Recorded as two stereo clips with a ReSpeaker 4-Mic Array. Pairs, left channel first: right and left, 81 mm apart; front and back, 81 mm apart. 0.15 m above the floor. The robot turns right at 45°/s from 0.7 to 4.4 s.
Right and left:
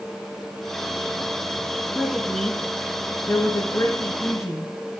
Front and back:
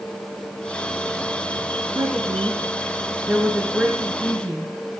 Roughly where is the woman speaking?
Behind.